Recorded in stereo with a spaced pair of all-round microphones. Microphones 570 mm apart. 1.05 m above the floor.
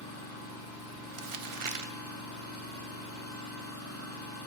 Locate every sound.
0.0 s an engine running: 25° left (ahead or behind), 2 m
1.1 s crumpling: 60° right (ahead or behind), 0.6 m